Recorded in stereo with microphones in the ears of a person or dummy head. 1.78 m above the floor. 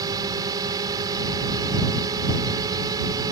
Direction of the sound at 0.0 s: 25° right (ahead or behind).